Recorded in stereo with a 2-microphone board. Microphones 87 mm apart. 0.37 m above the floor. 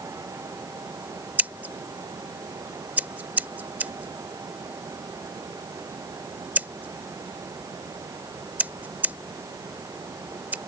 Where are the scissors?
20° right (ahead or behind).